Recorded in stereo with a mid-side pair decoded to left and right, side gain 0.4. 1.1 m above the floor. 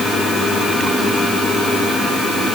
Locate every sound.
Only background noise.